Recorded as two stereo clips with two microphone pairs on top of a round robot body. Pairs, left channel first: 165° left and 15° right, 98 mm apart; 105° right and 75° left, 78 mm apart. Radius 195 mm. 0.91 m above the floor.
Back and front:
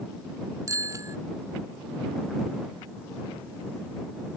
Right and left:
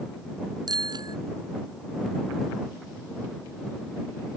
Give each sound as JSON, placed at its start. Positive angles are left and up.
{"t": 0.7, "sound": "a bicycle bell", "azimuth_deg": 45}